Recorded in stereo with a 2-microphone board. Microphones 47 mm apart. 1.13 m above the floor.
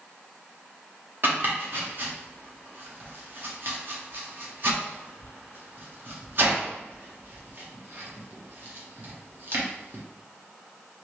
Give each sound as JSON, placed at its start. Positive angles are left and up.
{"t": 1.2, "sound": "chopping", "side_deg": -50, "distance_m": 0.8}